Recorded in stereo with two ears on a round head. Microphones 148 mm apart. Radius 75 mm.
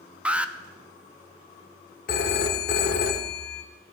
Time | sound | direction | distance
0.2 | an alarm | 5° right (ahead or behind) | 0.6 m
2.1 | a phone ringing | 60° left (ahead or behind) | 1.2 m